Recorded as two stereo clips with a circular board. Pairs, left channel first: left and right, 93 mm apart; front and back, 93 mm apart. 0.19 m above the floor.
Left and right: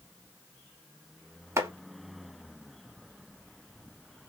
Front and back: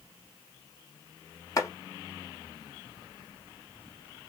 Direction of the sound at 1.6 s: 45° right.